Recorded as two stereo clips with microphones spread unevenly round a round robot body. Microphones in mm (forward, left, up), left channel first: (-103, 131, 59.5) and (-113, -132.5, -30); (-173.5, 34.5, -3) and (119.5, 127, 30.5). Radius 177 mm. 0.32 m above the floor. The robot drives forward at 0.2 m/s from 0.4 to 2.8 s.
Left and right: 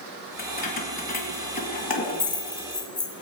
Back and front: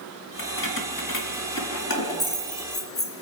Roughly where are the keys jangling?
Behind left.